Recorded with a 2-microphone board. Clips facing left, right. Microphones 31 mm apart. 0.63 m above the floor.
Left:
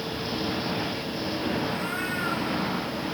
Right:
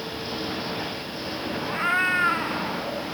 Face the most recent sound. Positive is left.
turn(degrees=-50)  # may be behind; listen again after turning